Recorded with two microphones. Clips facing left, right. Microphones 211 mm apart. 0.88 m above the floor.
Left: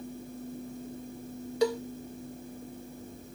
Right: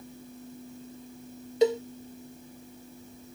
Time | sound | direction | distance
1.6 | a cowbell | 20° right (ahead or behind) | ?